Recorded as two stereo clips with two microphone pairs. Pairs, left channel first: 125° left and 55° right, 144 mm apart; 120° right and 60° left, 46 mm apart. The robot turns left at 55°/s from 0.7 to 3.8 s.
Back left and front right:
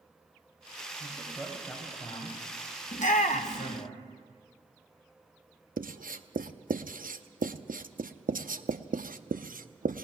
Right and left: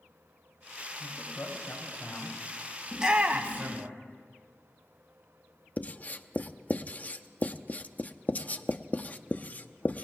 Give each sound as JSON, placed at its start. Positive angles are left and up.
{"t": 1.0, "sound": "a man speaking", "azimuth_deg": -110, "distance_m": 4.5}
{"t": 2.9, "sound": "a shout", "azimuth_deg": 140, "distance_m": 0.9}
{"t": 5.8, "sound": "writing", "azimuth_deg": -65, "distance_m": 0.7}